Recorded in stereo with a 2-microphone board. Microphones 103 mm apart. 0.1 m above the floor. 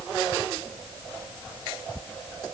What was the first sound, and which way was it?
Only background noise.